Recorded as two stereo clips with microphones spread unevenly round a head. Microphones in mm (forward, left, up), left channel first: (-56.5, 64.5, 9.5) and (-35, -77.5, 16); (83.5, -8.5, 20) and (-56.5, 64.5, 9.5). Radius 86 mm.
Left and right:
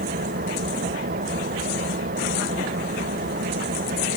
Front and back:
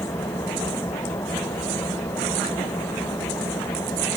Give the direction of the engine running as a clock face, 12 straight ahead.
3 o'clock.